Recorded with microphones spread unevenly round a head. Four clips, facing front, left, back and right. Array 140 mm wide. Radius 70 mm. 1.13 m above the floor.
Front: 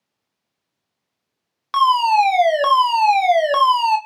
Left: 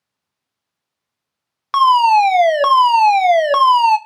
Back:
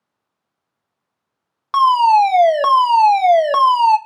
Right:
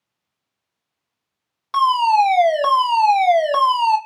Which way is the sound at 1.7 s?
130° left.